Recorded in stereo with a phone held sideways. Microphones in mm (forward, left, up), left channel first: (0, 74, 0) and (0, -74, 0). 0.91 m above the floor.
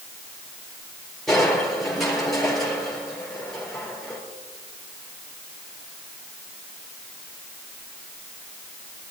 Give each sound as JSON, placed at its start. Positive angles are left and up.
{"t": 1.3, "sound": "crushing", "side_deg": 0, "distance_m": 4.0}